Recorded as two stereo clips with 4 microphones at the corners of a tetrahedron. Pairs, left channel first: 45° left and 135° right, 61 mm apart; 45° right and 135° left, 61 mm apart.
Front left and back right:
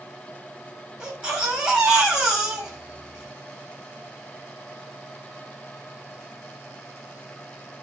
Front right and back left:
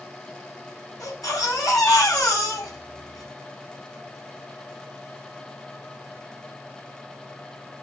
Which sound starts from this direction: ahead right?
A baby crying, at 1.0 s.